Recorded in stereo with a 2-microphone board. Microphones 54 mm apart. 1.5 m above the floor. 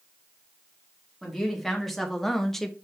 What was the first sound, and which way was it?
A woman speaking, centre (ahead or behind).